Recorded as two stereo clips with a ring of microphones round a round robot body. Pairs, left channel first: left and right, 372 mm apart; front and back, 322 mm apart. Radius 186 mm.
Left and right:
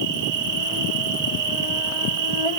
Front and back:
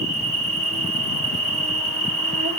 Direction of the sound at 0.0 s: 105° right.